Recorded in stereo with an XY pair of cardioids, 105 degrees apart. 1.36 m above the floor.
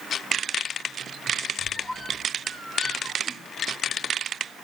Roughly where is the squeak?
Ahead right.